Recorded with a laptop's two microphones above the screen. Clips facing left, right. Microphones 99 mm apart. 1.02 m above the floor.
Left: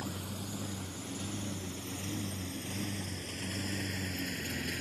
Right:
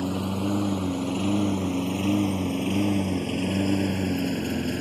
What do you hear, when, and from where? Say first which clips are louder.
0.0 s a lawn mower: right 14 dB; 85° right; by 4.8 s 50° right (ahead or behind)